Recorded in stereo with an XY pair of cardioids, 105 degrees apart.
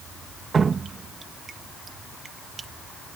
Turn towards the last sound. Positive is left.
turn(degrees=-40)